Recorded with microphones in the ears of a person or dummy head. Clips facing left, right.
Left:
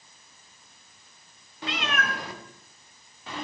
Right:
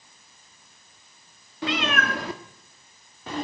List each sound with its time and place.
1.6 s a cat meowing: 55° right (ahead or behind), 1.1 m; by 3.5 s 40° right (ahead or behind), 1.8 m